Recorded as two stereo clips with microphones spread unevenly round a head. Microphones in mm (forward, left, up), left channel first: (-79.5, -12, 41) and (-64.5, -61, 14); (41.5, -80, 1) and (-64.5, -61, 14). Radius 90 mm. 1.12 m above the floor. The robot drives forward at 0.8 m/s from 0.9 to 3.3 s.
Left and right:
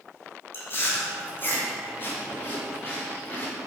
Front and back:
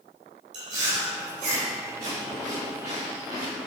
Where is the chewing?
135° left, 2.5 m; by 3.7 s 155° left, 4 m.